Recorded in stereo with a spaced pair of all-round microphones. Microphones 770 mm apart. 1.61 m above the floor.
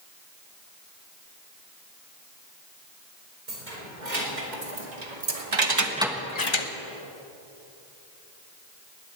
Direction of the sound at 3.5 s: 70° right (ahead or behind).